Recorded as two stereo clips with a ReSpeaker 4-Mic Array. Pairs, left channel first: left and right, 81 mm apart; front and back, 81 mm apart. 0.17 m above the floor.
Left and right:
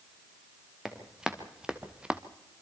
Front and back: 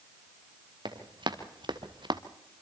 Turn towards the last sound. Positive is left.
turn(degrees=-165)